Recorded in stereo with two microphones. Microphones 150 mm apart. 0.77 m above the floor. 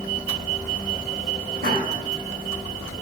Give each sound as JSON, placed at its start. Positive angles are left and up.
{"t": 1.6, "sound": "laughter", "side_deg": -80, "distance_m": 6.0}